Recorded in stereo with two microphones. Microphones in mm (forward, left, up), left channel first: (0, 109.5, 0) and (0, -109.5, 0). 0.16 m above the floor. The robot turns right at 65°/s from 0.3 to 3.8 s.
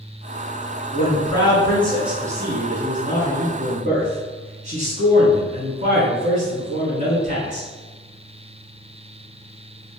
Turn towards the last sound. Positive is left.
turn(degrees=-60)